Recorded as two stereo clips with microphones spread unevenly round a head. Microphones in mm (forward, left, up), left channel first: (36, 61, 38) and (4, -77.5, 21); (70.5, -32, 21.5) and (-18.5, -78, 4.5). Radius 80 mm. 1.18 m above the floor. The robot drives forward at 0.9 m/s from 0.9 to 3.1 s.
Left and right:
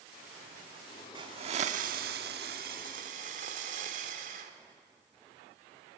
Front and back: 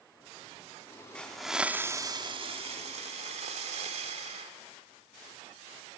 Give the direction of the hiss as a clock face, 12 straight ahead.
1 o'clock.